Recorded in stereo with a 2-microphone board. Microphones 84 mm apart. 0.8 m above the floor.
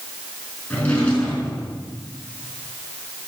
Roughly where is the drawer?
Centre.